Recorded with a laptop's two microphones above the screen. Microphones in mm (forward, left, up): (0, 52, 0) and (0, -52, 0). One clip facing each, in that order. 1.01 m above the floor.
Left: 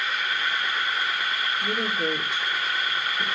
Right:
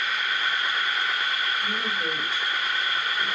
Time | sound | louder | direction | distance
1.6 | a woman speaking | left 2 dB | 70° left (ahead or behind) | 3 m